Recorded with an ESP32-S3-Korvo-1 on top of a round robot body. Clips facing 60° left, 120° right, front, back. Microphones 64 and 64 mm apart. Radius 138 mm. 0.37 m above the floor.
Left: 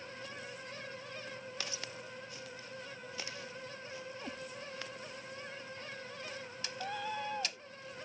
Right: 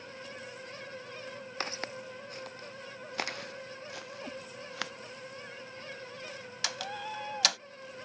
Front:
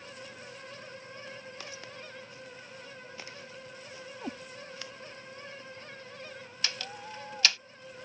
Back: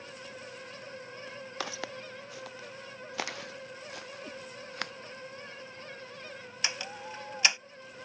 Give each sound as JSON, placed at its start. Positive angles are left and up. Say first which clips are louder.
{"t": 1.6, "sound": "footsteps", "louder": "right 6 dB, back 6 dB", "azimuth_deg": -170}
{"t": 4.2, "sound": "a cat meowing", "louder": "right 5 dB, front 9 dB", "azimuth_deg": -30}
{"t": 6.6, "sound": "a door slam", "louder": "right 2 dB, back 2 dB", "azimuth_deg": -110}